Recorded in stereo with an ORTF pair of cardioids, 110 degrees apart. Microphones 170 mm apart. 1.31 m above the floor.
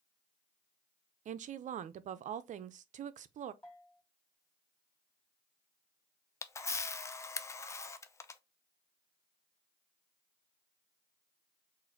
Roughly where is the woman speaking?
Ahead right.